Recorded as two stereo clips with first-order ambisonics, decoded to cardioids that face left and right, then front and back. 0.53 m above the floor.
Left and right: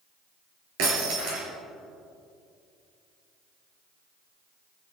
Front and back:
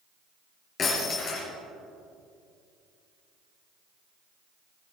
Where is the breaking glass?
60° right, 5.5 m.